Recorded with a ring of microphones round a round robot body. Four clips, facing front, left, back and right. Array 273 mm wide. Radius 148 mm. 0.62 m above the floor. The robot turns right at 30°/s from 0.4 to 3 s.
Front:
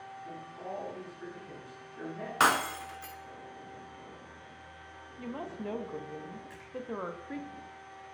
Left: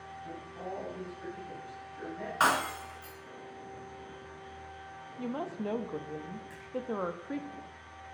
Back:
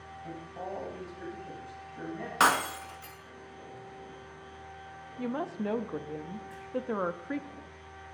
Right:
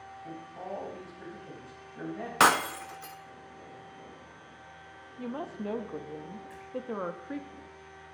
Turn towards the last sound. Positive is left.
turn(degrees=5)